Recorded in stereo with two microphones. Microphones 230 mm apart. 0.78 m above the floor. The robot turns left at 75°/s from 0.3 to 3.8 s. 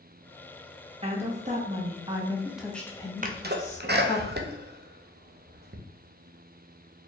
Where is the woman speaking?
55° right, 0.7 m; by 4.2 s 95° left, 0.7 m.